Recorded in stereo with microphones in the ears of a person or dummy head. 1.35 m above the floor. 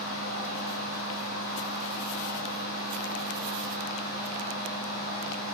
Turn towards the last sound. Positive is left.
turn(degrees=-20)  # may be behind; listen again after turning